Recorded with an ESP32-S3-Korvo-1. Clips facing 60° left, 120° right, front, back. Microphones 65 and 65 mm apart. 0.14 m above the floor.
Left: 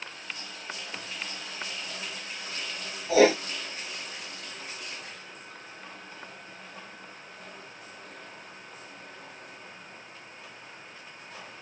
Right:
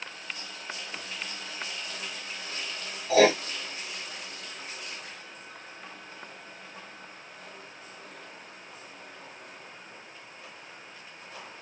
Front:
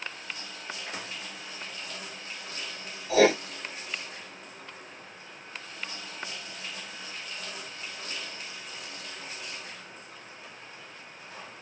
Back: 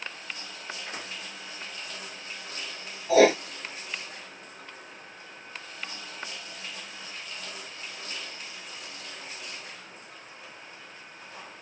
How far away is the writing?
About 9 m.